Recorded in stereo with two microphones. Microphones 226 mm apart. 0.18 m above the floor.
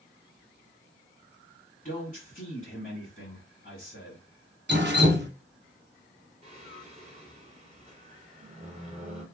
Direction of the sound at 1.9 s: 35° left (ahead or behind).